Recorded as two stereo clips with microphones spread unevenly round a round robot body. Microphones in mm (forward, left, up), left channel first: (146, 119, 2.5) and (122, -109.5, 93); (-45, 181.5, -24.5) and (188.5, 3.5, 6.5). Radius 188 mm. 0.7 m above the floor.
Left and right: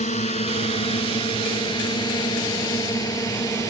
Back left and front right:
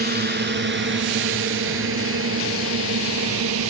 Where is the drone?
20° left; by 3.7 s 5° left.